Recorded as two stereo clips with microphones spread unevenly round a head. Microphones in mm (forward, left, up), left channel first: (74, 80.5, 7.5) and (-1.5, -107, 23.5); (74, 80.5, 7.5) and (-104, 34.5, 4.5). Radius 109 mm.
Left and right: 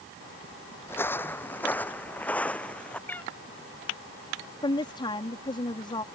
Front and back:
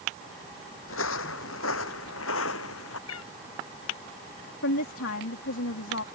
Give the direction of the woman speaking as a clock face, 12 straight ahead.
12 o'clock.